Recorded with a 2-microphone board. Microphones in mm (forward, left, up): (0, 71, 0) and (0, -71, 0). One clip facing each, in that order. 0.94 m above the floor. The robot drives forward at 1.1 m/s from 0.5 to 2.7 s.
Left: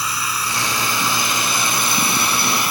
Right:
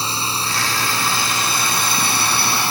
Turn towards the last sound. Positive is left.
turn(degrees=-30)  # may be behind; listen again after turning